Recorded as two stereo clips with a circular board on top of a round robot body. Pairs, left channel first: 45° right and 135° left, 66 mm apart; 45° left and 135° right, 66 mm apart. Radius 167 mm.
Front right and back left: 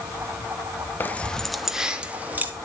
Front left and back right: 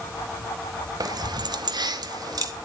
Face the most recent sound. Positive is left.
turn(degrees=-160)